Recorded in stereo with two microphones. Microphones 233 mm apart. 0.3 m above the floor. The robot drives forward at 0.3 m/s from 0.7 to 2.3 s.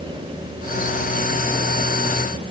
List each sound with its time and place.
Only background noise.